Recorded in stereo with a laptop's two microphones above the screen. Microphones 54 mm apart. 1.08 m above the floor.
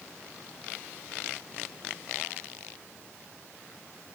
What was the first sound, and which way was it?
Only background noise.